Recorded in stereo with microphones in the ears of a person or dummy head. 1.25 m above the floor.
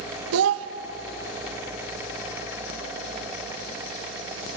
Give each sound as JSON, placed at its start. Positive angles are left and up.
{"t": 0.3, "sound": "a child speaking", "side_deg": -75, "distance_m": 0.9}